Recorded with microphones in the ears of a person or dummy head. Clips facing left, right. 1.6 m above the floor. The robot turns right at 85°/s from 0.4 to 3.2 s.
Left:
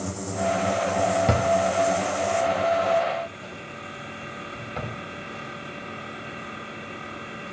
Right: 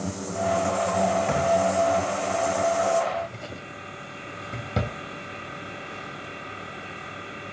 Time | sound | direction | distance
1.3 | a drawer | 55° left (ahead or behind) | 2 m